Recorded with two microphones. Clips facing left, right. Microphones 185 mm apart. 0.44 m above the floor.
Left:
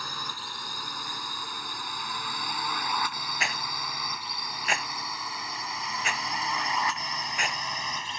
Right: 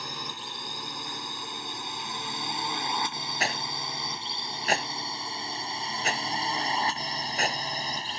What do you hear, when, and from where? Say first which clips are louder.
0.0 s a drone: right 1 dB; 20° right (ahead or behind); by 8.2 s 35° right (ahead or behind)
3.4 s a rattle: right 4 dB; 35° right (ahead or behind)